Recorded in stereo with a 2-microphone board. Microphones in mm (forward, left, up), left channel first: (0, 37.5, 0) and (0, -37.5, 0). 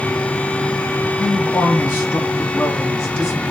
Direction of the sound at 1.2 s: 25° left (ahead or behind).